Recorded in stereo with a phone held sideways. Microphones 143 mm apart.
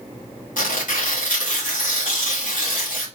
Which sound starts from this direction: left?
Tearing paper, at 0.6 s.